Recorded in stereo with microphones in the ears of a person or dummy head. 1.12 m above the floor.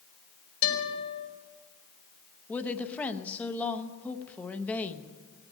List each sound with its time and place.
0.6 s a guitar: 85° left, 5.5 m
2.5 s a woman speaking: 5° left (ahead or behind), 0.7 m